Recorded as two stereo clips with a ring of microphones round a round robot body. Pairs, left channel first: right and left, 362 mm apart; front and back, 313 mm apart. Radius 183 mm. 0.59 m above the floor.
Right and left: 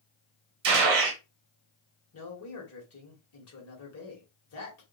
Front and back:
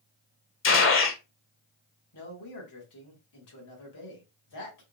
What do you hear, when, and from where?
0.6 s a gunshot: 50° left, 1.0 m
2.1 s a man speaking: 40° right, 2 m